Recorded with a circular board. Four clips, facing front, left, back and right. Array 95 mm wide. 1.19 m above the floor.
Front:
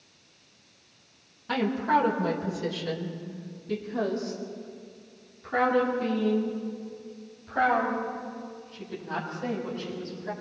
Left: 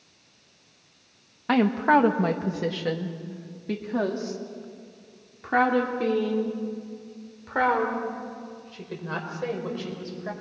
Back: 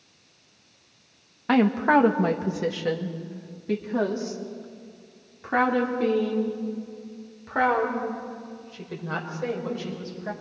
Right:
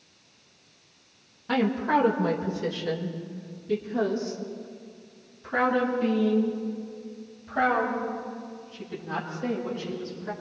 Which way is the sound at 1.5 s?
140° left.